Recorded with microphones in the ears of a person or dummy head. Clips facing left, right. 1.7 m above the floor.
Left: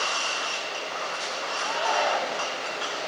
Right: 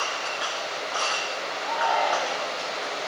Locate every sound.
1.6 s a shout: 25° left (ahead or behind), 4 m